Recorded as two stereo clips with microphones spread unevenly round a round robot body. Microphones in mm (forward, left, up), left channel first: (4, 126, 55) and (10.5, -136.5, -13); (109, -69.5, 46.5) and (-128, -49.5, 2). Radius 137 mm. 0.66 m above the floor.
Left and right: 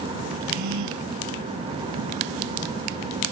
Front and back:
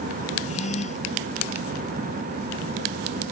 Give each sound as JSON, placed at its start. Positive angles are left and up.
{"t": 0.4, "sound": "a gasp", "azimuth_deg": -65}